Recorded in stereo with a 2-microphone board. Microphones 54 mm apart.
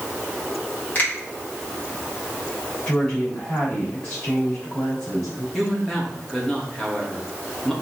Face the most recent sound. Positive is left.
turn(degrees=5)  # may be behind; listen again after turning